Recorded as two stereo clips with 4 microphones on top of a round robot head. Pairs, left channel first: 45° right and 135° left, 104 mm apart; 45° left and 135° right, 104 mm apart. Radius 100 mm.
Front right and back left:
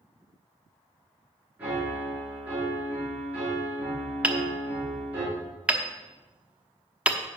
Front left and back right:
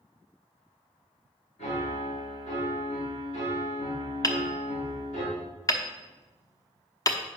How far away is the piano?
About 5 m.